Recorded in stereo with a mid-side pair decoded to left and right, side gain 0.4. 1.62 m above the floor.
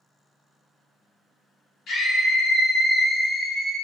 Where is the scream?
70° left, 1.4 m; by 3.8 s 20° right, 0.7 m.